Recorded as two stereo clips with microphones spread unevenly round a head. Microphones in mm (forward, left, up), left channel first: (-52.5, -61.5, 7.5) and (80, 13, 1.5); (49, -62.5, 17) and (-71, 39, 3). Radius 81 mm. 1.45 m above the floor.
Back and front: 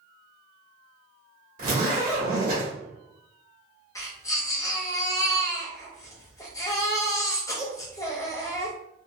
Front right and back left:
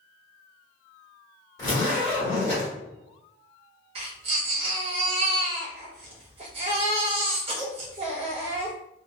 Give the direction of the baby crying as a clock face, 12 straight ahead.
7 o'clock.